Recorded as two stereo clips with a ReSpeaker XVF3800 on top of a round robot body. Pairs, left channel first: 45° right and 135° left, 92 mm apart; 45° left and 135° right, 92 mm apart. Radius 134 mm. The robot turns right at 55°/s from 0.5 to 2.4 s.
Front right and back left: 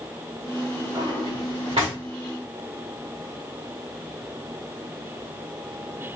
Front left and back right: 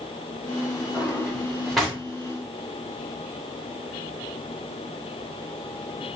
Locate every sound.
0.9 s a drawer: 85° left, 1.7 m; by 2.0 s 140° left, 1.7 m